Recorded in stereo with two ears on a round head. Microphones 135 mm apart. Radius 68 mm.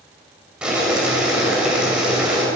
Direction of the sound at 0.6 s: 5° right (ahead or behind).